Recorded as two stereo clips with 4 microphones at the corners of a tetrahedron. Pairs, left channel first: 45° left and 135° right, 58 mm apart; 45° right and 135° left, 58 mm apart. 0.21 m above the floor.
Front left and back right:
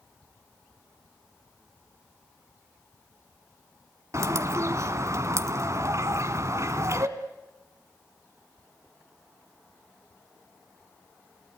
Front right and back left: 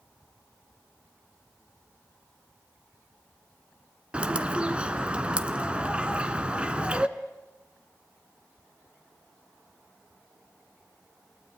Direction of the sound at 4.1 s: 155° right.